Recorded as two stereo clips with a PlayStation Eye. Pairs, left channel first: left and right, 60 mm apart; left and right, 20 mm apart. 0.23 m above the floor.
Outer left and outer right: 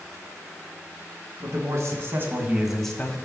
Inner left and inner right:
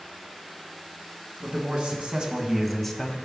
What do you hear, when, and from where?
1.4 s a man speaking: 65° right (ahead or behind), 2.5 m; by 3.2 s 30° left (ahead or behind), 1.2 m